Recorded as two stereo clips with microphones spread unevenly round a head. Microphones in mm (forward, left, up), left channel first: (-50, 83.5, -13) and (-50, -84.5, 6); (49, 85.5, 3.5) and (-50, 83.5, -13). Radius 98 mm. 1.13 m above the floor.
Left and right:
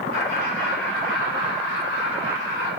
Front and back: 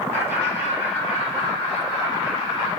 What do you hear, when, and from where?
0.1 s laughter: 30° right, 1.2 m; by 2.7 s 55° right, 4 m